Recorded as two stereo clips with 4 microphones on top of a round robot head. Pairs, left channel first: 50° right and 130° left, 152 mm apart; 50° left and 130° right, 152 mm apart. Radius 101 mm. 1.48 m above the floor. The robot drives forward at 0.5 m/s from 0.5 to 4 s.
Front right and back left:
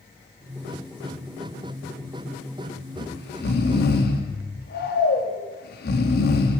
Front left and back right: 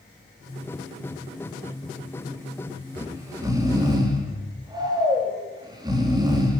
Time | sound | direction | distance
3.0 | snoring | 55° right | 4 m